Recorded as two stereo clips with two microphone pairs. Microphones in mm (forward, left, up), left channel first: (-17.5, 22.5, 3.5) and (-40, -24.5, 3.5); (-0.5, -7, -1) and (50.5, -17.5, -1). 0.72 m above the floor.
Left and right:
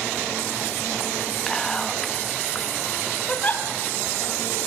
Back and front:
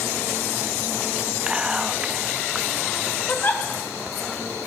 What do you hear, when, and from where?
1.5 s whispering: 5° right, 0.8 m
3.3 s a giggle: 120° left, 3.5 m